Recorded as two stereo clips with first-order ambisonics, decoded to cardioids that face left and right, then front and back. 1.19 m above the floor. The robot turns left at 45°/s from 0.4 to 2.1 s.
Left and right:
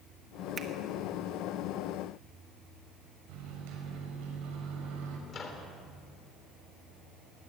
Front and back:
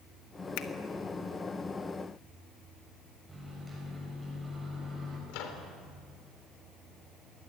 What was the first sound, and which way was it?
A finger snap, 20° right.